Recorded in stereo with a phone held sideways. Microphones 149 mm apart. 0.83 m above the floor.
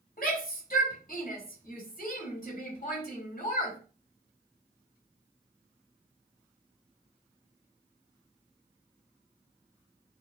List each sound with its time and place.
0.2 s a shout: 75° left (ahead or behind), 4.5 m